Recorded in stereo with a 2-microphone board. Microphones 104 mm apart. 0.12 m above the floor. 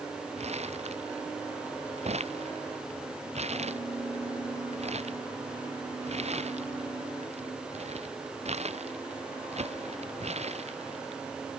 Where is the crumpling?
85° right.